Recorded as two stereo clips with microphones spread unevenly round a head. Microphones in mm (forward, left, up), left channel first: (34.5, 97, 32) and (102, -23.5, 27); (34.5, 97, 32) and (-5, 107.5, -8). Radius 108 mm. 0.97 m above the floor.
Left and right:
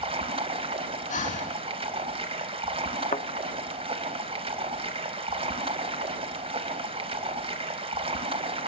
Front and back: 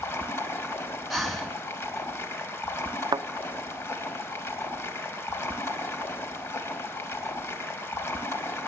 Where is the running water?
15° right, 3 m.